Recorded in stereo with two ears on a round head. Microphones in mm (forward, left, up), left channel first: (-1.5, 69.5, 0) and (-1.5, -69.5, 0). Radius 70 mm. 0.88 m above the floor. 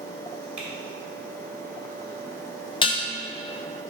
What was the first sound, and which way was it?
Typing on a keyboard, 10° right (ahead or behind).